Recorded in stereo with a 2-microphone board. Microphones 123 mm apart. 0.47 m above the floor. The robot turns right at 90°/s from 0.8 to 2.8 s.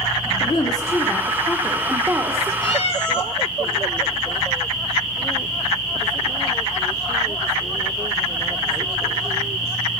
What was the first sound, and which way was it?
A woman speaking, 90° left.